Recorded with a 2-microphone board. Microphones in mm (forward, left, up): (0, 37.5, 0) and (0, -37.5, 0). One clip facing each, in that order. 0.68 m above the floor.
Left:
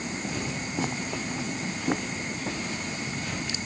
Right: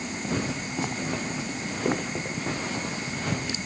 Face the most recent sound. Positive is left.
turn(degrees=-80)